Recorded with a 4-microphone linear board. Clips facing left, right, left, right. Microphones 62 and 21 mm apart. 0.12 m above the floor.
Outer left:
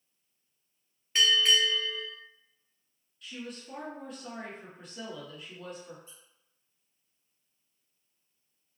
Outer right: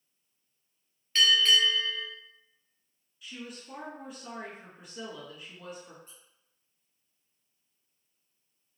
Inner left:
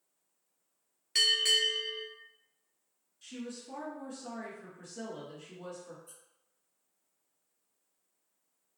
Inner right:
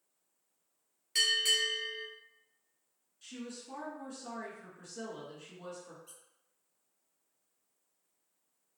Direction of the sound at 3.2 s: 5° right (ahead or behind).